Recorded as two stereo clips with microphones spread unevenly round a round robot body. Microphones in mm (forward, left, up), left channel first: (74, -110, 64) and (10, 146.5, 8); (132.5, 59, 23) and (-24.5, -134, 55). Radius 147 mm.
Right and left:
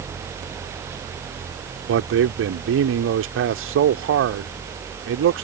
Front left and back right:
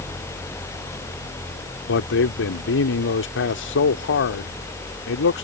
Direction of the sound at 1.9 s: 80° left.